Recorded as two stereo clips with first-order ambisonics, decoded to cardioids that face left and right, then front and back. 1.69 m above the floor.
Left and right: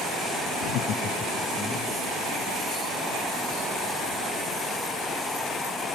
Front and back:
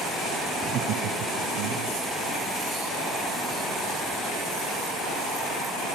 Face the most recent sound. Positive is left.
turn(degrees=175)